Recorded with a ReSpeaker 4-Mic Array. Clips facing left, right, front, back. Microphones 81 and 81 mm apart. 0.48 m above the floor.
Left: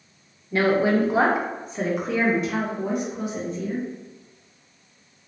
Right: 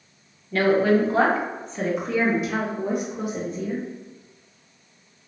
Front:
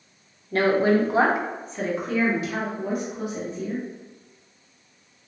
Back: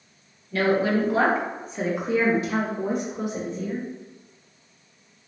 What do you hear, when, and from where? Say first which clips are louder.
0.5 s a woman speaking: right 1 dB, front 2 dB; 25° left, 0.9 m; by 3.9 s 165° right, 1.4 m